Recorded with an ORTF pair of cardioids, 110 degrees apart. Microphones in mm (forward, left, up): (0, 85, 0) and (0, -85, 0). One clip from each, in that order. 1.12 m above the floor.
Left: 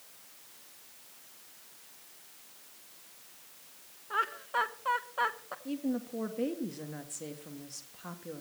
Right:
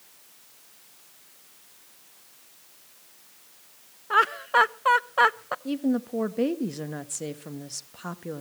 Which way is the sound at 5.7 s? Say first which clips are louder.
Right 7 dB; 45° right.